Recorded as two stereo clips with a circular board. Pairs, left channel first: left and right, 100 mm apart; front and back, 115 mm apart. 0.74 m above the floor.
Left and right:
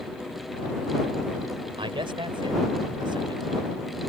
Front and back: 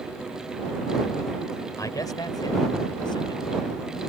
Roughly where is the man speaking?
Ahead right.